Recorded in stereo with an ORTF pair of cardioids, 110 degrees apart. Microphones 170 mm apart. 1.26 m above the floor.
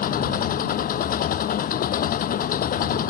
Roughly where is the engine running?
Ahead left.